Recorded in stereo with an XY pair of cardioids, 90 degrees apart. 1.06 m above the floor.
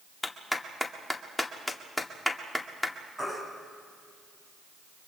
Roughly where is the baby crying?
Ahead.